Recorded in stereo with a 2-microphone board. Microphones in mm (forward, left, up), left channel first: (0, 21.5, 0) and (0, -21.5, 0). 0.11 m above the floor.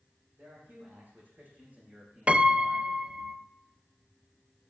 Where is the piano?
30° right (ahead or behind), 0.7 m.